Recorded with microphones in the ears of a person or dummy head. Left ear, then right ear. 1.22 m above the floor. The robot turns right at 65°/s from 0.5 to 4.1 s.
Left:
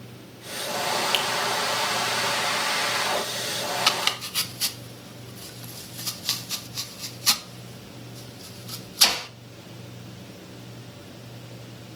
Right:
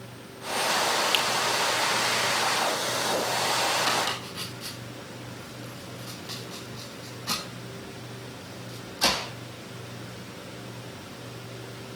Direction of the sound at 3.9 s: 60° left (ahead or behind).